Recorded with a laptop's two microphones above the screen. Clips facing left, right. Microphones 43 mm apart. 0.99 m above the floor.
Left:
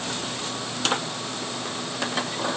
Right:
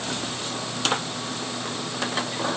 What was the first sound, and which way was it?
Only background noise.